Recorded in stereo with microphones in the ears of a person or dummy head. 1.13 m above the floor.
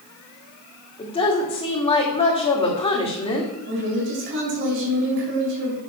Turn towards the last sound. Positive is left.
turn(degrees=-45)  # may be behind; listen again after turning